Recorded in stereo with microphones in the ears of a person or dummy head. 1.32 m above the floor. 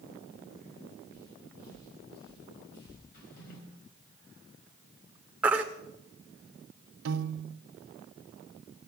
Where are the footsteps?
50° left (ahead or behind), 6 m; by 3.0 s 65° left (ahead or behind), 3.5 m.